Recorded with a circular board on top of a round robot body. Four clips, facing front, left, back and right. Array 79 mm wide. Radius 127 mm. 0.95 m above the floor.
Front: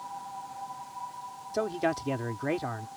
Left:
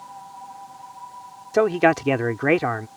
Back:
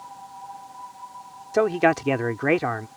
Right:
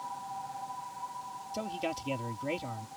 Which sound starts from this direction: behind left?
A man speaking, at 1.5 s.